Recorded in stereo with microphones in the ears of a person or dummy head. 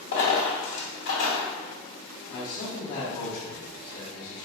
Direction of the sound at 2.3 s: 40° left (ahead or behind).